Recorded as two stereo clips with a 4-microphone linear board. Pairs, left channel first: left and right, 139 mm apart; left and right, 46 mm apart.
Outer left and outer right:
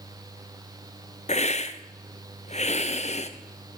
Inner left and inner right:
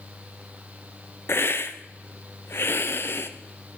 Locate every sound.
1.3 s a hiss: 55° left (ahead or behind), 0.6 m